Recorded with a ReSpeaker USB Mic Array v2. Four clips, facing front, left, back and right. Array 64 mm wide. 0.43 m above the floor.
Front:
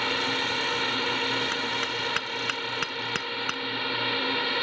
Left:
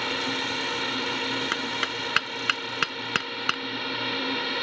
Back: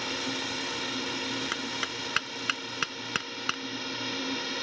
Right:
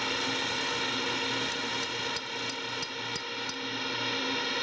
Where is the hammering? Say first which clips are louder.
Left 5 dB, front 5 dB; 95° left.